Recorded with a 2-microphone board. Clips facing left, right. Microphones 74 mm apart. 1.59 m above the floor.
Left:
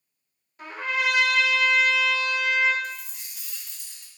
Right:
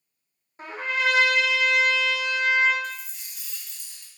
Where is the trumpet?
30° right (ahead or behind), 0.9 m.